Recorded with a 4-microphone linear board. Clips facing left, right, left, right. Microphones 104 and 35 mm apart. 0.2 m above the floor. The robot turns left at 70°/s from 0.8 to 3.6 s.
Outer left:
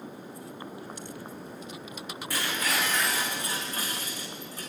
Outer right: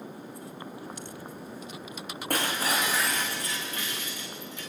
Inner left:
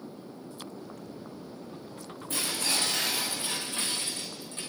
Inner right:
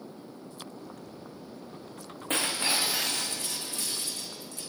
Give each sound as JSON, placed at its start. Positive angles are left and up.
{"t": 2.3, "sound": "breaking glass", "azimuth_deg": -125, "distance_m": 3.5}